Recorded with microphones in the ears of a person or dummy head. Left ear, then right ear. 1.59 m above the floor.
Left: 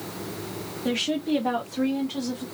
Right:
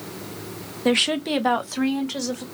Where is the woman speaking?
30° right (ahead or behind), 0.6 m; by 2.5 s 65° right (ahead or behind), 1.2 m.